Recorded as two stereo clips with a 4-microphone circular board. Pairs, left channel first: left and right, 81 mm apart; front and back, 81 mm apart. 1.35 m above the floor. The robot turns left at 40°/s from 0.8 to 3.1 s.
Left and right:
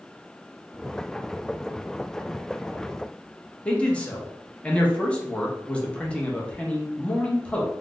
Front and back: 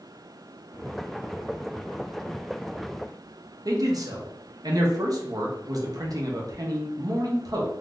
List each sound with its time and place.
3.6 s a man speaking: 160° left, 0.7 m